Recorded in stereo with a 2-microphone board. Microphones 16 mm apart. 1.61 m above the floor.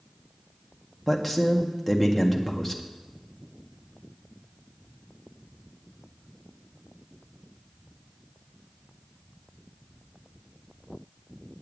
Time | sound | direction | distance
1.1 | a man speaking | 5° right (ahead or behind) | 1.7 m